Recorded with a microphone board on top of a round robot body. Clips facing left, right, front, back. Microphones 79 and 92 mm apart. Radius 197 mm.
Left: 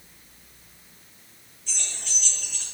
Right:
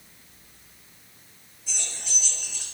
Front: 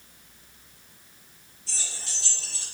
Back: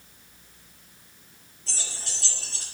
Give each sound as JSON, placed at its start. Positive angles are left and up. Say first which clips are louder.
{"t": 1.7, "sound": "keys jangling", "louder": "even, back 2 dB", "azimuth_deg": -170, "distance_m": 3.5}